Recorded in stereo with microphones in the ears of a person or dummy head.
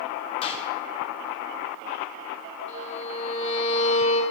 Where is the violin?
40° left (ahead or behind), 4.5 m.